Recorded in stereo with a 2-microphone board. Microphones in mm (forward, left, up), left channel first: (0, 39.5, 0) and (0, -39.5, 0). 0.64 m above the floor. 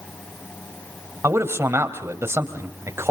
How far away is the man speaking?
About 3 m.